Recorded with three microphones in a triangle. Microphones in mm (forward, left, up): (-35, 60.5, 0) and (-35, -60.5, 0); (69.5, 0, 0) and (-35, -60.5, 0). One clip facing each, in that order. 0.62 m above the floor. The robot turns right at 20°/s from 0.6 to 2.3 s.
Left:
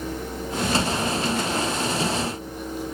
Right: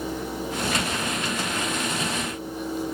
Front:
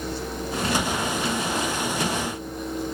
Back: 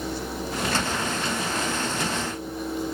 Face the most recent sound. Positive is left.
No sound to turn to.